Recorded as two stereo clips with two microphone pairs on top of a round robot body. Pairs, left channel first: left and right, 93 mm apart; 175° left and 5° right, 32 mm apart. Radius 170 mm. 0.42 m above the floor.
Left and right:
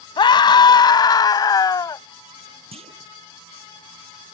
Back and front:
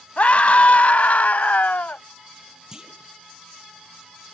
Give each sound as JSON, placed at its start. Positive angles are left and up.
{"t": 0.2, "sound": "a scream", "azimuth_deg": 130}
{"t": 2.7, "sound": "a clunk", "azimuth_deg": -75}